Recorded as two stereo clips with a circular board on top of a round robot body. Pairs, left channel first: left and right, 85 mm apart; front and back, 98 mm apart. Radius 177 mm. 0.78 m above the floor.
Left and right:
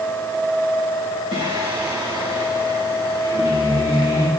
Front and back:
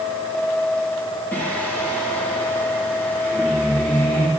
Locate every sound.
1.3 s singing: 70° right, 2.5 m